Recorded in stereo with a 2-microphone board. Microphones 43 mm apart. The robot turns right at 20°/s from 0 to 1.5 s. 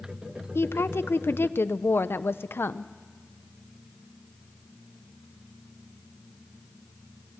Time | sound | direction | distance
0.6 | a woman speaking | 80° left | 0.6 m